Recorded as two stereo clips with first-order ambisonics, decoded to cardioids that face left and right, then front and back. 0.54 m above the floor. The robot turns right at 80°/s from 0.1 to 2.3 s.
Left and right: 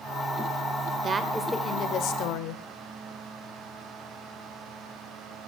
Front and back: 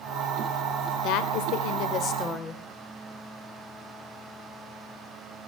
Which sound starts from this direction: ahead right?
A woman speaking, at 1.0 s.